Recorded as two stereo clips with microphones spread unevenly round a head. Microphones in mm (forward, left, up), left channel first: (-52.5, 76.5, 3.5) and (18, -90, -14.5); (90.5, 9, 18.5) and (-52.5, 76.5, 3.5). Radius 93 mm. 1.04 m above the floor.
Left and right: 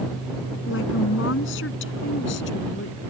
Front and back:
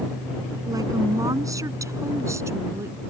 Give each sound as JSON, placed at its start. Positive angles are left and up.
{"t": 0.7, "sound": "a woman speaking", "azimuth_deg": 85}